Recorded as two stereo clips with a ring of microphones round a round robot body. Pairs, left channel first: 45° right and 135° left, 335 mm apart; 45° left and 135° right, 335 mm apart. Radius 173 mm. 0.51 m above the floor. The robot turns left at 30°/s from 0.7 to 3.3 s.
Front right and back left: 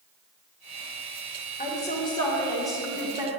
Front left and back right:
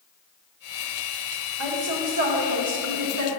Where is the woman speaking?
105° right, 1.4 m; by 3.3 s 155° right, 1.4 m.